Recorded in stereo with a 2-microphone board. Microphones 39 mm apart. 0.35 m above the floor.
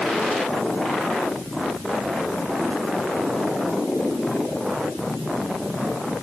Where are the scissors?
I don't hear scissors.